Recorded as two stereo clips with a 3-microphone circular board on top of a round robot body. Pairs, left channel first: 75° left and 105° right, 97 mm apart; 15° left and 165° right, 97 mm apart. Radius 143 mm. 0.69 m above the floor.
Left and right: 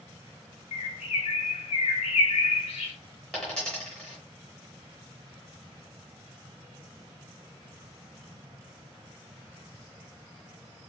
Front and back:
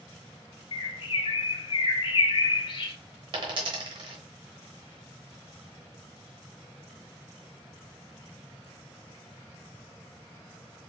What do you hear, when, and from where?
0.7 s a bird: 55° left, 0.5 m
3.3 s a dropped coin: 155° left, 1.0 m